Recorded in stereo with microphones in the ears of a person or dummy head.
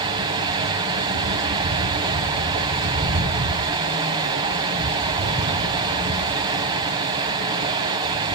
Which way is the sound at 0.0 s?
30° right (ahead or behind).